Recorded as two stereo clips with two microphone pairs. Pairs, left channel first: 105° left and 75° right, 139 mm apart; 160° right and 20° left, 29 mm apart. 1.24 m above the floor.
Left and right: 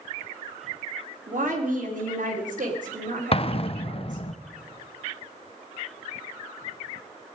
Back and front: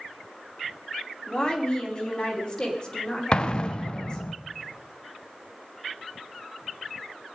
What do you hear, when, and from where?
1.3 s a woman speaking: 100° right, 3 m
3.3 s an explosion: 150° left, 0.6 m